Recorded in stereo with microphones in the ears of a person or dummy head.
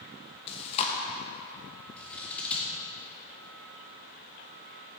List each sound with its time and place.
0.5 s chewing: 35° left (ahead or behind), 1.1 m
2.0 s scissors: 10° left (ahead or behind), 2 m